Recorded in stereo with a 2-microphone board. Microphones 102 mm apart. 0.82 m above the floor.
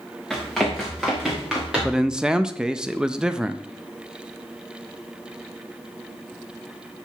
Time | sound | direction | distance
0.3 | running footsteps | 5° left (ahead or behind) | 4.5 m
1.8 | a man speaking | 5° right (ahead or behind) | 0.5 m